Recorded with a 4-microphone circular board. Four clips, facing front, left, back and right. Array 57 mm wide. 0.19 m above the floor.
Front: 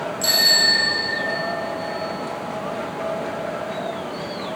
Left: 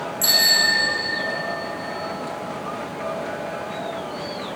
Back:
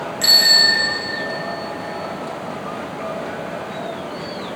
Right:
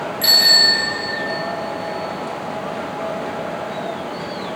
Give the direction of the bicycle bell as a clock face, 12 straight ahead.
5 o'clock.